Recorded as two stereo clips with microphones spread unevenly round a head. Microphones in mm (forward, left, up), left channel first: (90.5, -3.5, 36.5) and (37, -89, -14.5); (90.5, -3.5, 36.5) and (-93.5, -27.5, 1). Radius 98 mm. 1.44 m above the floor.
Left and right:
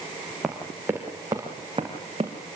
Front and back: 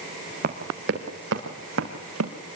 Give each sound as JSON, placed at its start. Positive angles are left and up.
{"t": 0.4, "sound": "running footsteps", "azimuth_deg": 135, "distance_m": 3.0}